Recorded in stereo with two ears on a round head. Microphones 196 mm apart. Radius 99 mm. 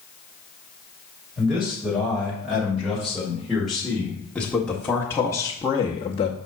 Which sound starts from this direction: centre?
A man speaking, at 1.4 s.